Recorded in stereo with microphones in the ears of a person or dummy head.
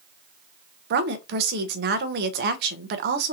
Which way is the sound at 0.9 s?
50° right (ahead or behind).